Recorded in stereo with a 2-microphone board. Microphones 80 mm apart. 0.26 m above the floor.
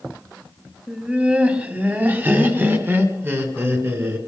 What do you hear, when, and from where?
0.9 s laughter: 10° right (ahead or behind), 1.7 m; by 4.2 s 30° right (ahead or behind), 3 m